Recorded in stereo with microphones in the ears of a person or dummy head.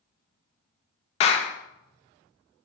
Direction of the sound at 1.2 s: 35° left (ahead or behind).